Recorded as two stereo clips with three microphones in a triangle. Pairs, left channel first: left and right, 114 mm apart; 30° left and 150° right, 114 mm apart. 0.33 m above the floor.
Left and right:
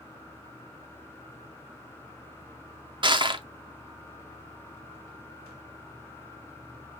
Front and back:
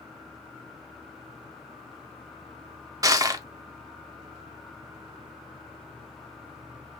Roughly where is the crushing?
Right.